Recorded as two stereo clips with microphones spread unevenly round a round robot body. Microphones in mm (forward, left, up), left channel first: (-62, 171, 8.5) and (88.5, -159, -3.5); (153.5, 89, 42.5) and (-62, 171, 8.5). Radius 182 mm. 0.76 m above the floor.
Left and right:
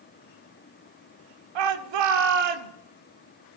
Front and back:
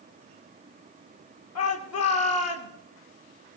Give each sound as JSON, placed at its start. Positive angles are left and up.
{"t": 1.6, "sound": "a shout", "azimuth_deg": -60, "distance_m": 2.0}